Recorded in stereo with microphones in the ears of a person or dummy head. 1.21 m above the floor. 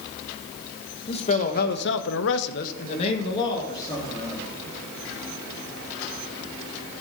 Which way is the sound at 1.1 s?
35° left (ahead or behind).